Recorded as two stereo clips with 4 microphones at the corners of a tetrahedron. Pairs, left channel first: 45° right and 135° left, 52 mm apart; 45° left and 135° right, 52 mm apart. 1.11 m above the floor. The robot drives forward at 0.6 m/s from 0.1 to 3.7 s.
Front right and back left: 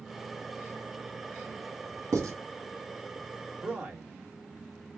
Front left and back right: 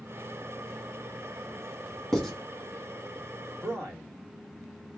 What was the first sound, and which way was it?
Writing, 130° left.